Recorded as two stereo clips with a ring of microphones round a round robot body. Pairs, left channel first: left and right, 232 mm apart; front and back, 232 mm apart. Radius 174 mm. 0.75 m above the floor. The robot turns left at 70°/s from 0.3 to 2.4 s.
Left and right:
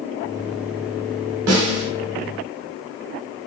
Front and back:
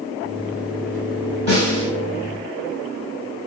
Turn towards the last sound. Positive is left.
turn(degrees=-140)